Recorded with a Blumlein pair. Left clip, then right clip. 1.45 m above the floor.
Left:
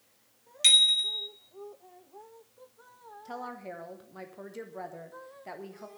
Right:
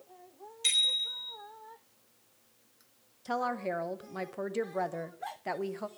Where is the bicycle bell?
55° left, 3.5 m.